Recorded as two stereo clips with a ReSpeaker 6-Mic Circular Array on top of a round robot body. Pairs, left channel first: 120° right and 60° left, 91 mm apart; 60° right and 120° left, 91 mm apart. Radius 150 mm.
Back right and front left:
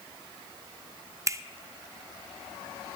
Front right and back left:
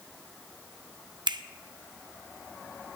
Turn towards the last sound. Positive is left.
turn(degrees=110)